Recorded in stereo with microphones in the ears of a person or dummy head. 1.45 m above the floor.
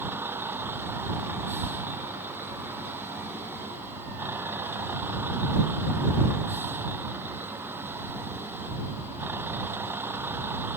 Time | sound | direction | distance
0.0 | a vehicle | 10° right (ahead or behind) | ?